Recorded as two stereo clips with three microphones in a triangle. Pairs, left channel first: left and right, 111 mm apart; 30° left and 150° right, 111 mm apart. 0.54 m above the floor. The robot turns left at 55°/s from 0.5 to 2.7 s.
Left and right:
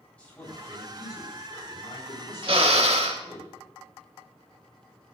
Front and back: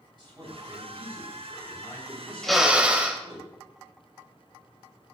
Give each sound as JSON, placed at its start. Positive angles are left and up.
{"t": 0.2, "sound": "a man speaking", "azimuth_deg": 170, "distance_m": 4.5}
{"t": 2.4, "sound": "a drill", "azimuth_deg": -55, "distance_m": 1.2}